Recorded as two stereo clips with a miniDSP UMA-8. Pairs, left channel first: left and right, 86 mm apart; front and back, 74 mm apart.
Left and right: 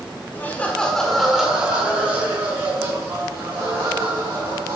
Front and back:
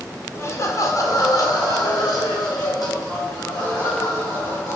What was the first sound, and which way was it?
Laughter, 35° left.